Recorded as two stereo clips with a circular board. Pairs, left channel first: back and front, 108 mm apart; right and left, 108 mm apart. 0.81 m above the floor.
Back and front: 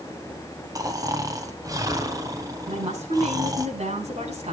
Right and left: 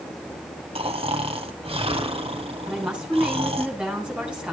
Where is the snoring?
60° left, 2.5 m.